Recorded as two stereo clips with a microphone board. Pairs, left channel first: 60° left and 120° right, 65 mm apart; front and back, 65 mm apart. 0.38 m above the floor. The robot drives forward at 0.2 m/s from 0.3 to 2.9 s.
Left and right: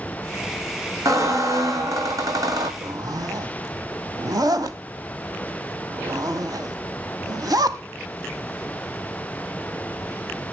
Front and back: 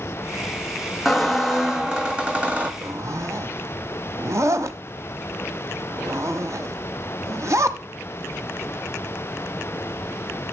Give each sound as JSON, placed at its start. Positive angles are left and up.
{"t": 1.1, "sound": "a squeak", "azimuth_deg": -90, "distance_m": 0.9}
{"t": 2.8, "sound": "a zipper", "azimuth_deg": -140, "distance_m": 0.6}